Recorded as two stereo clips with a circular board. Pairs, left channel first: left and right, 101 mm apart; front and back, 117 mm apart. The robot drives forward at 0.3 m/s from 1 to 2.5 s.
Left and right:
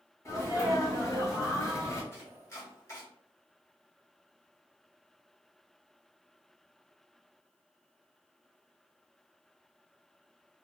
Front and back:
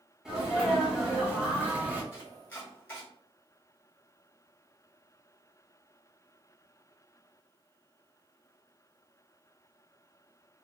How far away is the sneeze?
About 1.8 m.